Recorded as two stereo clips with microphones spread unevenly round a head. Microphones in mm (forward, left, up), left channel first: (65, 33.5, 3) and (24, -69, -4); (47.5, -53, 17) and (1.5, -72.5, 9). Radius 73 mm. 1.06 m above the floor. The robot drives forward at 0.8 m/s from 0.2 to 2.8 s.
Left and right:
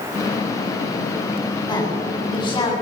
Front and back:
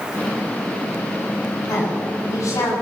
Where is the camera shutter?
No camera shutter in this recording.